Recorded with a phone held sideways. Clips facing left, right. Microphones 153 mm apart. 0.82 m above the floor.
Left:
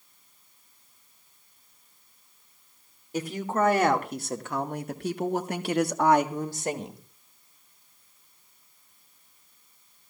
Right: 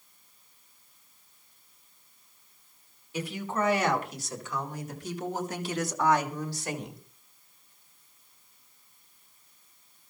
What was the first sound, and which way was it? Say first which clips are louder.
A woman speaking: left 4 dB; 45° left (ahead or behind).